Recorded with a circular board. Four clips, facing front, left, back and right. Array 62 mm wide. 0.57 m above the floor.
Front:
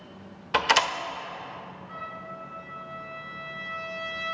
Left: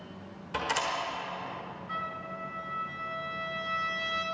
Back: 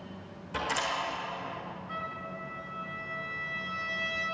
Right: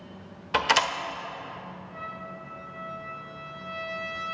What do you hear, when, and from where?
0.5 s a door slam: 35° right, 1.3 m
1.9 s a trumpet: 105° left, 3 m